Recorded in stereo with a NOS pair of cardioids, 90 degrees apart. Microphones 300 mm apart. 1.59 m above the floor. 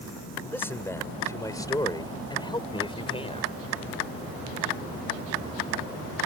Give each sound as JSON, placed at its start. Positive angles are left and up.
{"t": 0.4, "sound": "a man speaking", "azimuth_deg": 5}